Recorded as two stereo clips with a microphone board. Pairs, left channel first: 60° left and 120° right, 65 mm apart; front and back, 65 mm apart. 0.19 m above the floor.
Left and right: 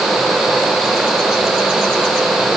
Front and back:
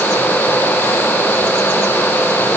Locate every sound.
Only background noise.